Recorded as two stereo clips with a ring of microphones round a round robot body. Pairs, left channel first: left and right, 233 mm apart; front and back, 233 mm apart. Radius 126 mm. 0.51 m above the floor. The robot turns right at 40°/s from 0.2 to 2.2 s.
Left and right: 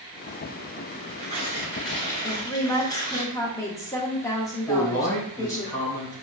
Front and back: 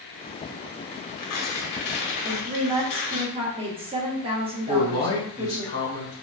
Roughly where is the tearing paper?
Ahead right.